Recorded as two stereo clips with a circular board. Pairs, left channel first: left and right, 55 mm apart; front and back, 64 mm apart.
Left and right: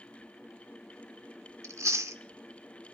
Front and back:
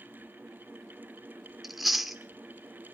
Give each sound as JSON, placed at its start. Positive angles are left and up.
{"t": 1.6, "sound": "chewing", "azimuth_deg": -95, "distance_m": 1.3}